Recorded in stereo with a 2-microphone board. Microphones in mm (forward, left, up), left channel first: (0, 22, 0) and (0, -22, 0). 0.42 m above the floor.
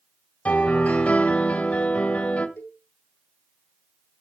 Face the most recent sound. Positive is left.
turn(degrees=65)  # may be behind; listen again after turning